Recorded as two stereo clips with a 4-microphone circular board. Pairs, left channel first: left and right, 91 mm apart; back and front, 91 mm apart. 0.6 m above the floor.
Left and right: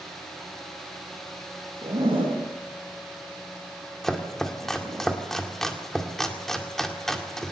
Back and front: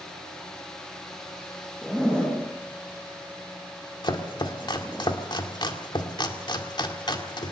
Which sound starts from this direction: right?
A zipper, at 1.8 s.